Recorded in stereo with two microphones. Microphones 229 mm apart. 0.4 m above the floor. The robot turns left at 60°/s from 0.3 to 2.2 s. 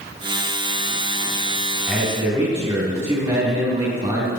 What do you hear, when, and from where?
1.9 s a man speaking: 5° right (ahead or behind), 3 m; by 4.3 s 25° right (ahead or behind), 3 m